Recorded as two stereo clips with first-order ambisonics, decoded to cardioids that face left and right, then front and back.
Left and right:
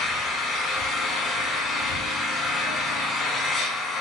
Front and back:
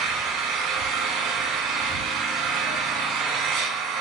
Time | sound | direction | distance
0.0 | an engine running | 155° left | 4.5 m